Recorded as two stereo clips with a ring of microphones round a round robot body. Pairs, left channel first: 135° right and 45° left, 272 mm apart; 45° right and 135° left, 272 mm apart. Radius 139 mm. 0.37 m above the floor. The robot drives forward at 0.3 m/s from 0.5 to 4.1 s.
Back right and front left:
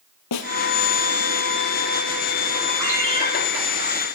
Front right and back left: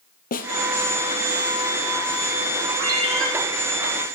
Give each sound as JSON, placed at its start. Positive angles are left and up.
{"t": 0.3, "sound": "a snare drum", "azimuth_deg": -105, "distance_m": 1.6}
{"t": 2.8, "sound": "a ringtone", "azimuth_deg": 95, "distance_m": 9.0}